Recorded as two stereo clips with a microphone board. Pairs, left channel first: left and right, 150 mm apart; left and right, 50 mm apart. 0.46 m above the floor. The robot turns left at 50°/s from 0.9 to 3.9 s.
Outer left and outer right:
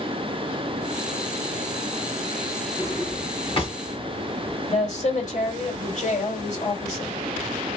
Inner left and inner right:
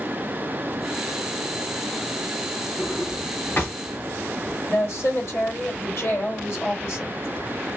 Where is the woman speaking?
55° left (ahead or behind), 2.5 m.